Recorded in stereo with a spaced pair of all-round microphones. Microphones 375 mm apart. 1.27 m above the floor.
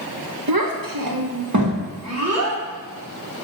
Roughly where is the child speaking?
Right.